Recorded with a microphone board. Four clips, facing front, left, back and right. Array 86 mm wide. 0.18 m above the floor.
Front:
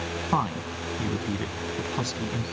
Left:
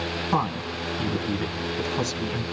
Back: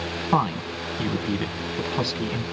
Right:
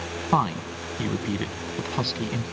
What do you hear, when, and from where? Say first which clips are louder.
0.3 s a woman speaking: right 3 dB, back 4 dB; 125° right, 1.0 m